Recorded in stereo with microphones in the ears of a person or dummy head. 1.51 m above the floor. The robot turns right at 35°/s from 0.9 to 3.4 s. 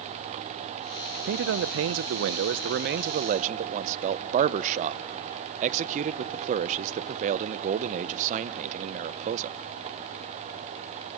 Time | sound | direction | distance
1.2 | a man speaking | 115° right | 0.8 m